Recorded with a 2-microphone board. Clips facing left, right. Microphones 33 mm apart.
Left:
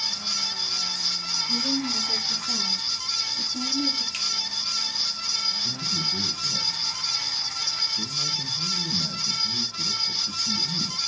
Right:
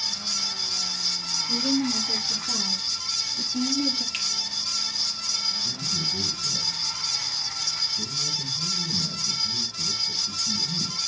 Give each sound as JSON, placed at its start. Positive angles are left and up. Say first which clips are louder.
{"t": 1.5, "sound": "a woman speaking", "louder": "right 3 dB", "side_deg": -10, "distance_m": 5.0}
{"t": 4.1, "sound": "a finger snap", "louder": "even", "side_deg": -15, "distance_m": 6.0}
{"t": 5.6, "sound": "a man speaking", "louder": "left 1 dB", "side_deg": 35, "distance_m": 1.8}